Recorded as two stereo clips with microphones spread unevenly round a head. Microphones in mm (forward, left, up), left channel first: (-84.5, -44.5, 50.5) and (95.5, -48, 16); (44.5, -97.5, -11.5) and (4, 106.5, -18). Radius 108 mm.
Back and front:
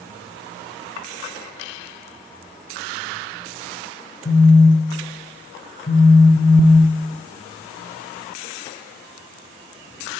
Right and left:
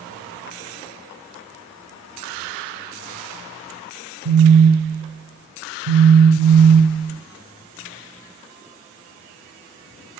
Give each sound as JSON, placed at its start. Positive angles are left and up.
{"t": 4.2, "sound": "a phone buzzing", "azimuth_deg": 120, "distance_m": 0.5}